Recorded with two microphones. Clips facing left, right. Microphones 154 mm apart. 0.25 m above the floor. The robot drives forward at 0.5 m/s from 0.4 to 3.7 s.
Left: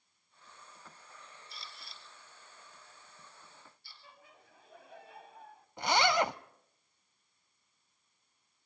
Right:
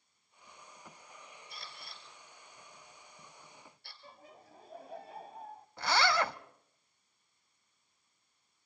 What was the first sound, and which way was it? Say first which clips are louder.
A camera shutter: right 3 dB; 50° right (ahead or behind).